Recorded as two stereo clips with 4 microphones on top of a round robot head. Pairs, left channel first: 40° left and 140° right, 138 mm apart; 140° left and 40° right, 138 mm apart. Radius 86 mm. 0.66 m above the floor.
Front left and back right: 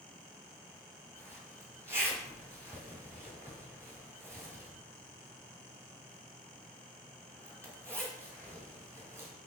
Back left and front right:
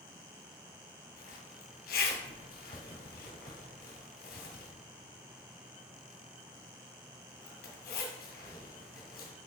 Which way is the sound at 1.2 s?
150° left.